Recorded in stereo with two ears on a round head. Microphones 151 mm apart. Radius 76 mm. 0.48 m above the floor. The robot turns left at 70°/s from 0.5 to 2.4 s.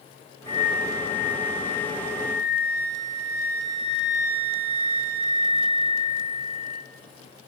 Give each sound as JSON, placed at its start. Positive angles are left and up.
{"t": 0.5, "sound": "a flute", "azimuth_deg": -125, "distance_m": 0.6}